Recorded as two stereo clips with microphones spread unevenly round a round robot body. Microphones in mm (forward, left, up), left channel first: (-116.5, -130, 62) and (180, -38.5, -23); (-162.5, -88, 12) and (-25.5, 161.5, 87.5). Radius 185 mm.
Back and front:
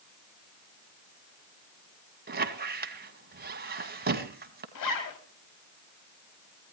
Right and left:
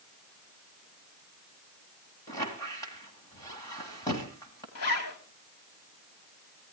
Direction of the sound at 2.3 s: 40° right.